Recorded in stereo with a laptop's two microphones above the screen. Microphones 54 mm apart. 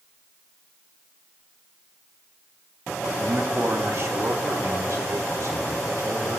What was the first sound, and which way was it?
A man speaking, 40° right (ahead or behind).